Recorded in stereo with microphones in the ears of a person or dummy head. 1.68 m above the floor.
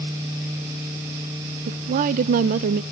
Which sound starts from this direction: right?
A woman speaking, at 1.7 s.